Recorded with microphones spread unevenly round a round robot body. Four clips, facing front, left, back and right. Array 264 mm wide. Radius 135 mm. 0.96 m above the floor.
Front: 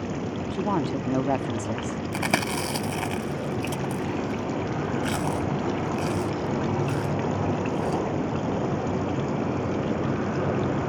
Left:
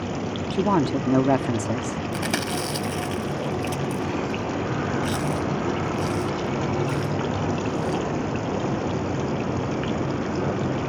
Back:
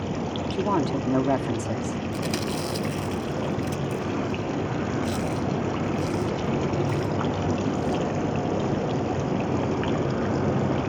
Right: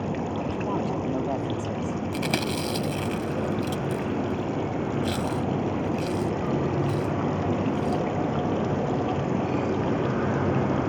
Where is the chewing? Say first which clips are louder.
Left 1 dB, front 1 dB; 5° right.